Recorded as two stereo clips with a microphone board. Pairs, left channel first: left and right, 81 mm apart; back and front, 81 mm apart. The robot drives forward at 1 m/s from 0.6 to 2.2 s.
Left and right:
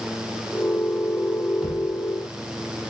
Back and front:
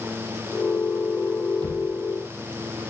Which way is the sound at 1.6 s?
15° right.